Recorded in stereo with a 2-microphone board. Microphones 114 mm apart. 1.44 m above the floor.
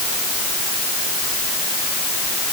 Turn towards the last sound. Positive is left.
No sound to turn to.